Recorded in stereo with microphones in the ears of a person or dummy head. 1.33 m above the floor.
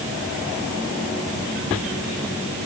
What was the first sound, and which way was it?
Only background noise.